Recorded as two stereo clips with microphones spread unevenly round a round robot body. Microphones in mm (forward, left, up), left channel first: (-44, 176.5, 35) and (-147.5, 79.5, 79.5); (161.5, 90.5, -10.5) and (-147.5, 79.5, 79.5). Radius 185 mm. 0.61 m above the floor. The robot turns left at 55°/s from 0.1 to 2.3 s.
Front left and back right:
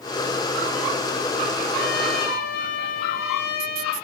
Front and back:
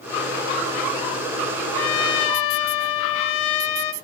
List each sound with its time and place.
1.8 s a trumpet: 45° left, 0.7 m; by 3.9 s 15° left, 0.7 m